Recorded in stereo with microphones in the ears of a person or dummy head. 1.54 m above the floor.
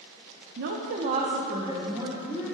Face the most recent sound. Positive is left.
turn(degrees=-10)  # may be behind; listen again after turning